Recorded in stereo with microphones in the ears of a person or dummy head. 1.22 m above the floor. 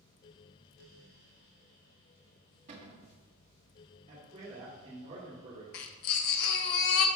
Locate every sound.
2.7 s a cupboard door: 45° right (ahead or behind), 1.5 m
4.1 s a man speaking: 35° right (ahead or behind), 2.5 m
5.7 s a baby crying: 45° left (ahead or behind), 0.7 m